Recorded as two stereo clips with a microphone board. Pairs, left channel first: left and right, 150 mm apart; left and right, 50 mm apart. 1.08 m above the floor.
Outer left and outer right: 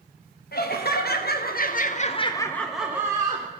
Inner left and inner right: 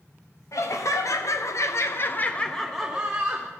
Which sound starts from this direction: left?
Laughter, at 0.5 s.